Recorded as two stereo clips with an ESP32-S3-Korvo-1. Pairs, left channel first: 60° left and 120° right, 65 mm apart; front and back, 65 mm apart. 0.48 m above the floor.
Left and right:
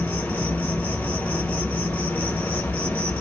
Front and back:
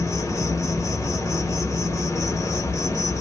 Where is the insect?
Straight ahead, 0.9 m.